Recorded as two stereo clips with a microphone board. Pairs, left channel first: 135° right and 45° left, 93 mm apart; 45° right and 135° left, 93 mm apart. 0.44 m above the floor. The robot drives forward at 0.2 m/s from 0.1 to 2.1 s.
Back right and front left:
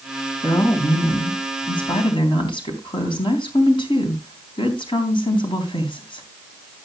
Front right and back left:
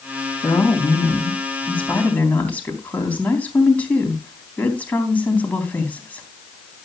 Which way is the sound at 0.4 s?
110° right.